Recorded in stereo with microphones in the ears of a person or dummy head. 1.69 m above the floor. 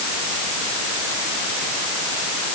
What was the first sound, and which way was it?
Only background noise.